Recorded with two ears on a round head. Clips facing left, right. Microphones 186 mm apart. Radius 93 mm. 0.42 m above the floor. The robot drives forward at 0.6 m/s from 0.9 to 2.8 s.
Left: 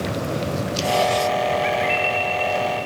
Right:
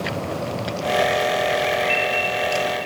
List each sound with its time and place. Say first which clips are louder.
1.6 s a bird: even; 60° left (ahead or behind), 3 m